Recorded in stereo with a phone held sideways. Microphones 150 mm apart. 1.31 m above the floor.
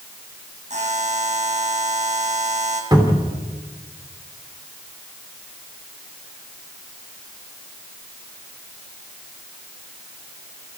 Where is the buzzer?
50° right (ahead or behind), 4.5 m.